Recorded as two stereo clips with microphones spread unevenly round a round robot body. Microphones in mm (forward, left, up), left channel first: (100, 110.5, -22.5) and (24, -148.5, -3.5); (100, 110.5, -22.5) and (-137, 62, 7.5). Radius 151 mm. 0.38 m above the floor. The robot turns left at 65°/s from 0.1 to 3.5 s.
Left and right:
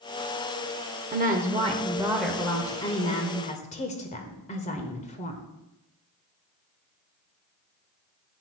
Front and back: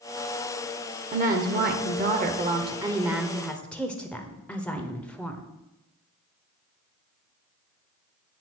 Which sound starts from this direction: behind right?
A woman speaking, at 1.1 s.